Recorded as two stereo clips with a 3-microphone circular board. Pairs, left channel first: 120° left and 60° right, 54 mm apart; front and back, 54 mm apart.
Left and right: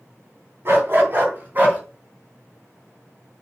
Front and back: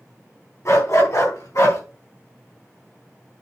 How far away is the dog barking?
About 3.5 m.